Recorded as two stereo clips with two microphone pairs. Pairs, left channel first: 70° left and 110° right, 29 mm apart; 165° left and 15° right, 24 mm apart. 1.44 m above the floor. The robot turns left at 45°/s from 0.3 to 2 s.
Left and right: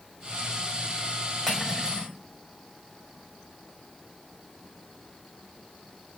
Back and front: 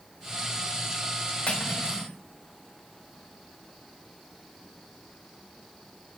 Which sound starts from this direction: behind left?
Cutlery clinking, at 1.5 s.